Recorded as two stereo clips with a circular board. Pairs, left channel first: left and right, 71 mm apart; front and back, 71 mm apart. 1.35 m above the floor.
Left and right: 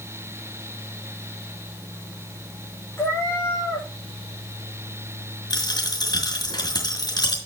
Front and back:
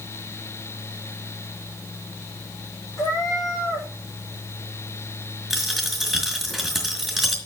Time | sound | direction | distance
3.0 | a cat meowing | 35° left | 7 m
5.5 | a dropped coin | 90° left | 4 m